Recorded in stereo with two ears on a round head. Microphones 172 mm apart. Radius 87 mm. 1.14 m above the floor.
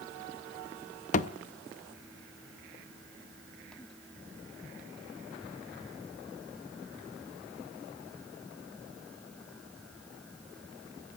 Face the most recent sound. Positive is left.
turn(degrees=40)  # may be behind; listen again after turning